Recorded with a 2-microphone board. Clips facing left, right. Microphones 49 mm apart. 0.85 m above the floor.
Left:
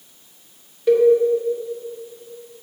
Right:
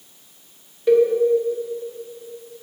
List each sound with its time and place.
0.9 s a cowbell: centre (ahead or behind), 1.1 m